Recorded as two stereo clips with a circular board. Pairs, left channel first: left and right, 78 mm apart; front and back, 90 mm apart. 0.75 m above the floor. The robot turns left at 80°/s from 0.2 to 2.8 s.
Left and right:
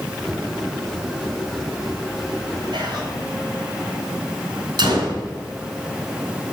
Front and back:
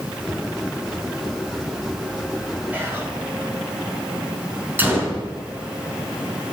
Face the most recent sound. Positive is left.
turn(degrees=-110)